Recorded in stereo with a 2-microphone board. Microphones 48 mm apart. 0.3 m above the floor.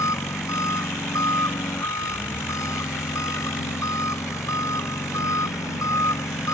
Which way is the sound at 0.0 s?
85° left.